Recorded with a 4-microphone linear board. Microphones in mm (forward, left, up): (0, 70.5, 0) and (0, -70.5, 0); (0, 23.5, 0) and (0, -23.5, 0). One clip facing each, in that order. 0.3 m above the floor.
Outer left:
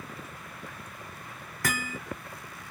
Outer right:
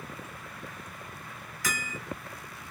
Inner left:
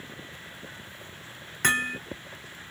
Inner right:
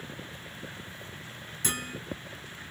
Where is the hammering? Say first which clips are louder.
Outer left 4 dB, inner left 10 dB; 60° left (ahead or behind), 0.9 m.